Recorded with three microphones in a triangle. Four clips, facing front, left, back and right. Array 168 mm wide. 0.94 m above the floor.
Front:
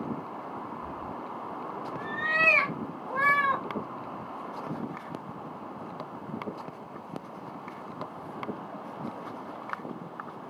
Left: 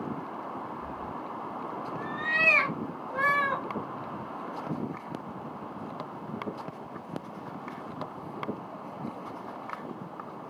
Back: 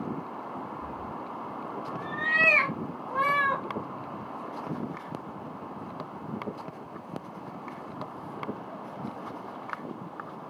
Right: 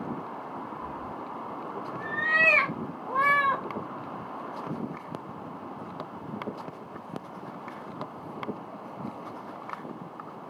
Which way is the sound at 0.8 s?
170° right.